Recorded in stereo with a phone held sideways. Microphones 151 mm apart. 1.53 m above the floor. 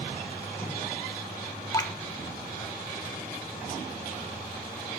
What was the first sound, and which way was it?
Dripping, 20° left (ahead or behind).